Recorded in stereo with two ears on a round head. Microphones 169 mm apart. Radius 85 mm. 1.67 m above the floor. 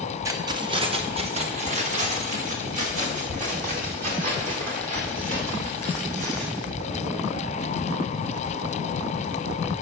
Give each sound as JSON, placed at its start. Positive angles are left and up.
{"t": 0.2, "sound": "keys jangling", "side_deg": -15, "distance_m": 0.7}